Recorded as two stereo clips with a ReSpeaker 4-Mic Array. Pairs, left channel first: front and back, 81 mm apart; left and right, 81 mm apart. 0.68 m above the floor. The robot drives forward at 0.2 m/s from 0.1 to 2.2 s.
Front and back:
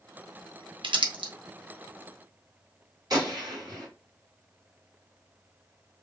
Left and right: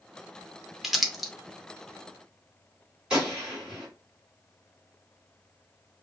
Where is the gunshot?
165° right, 1.8 m.